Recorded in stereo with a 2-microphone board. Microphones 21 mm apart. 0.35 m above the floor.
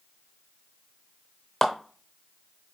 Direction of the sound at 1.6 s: 15° left (ahead or behind).